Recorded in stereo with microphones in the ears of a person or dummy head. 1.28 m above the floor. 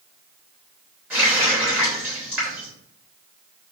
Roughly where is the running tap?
Centre.